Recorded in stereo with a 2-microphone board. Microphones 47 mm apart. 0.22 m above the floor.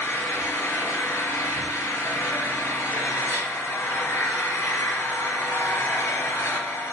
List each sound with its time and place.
0.0 s an engine running: 70° left (ahead or behind), 4 m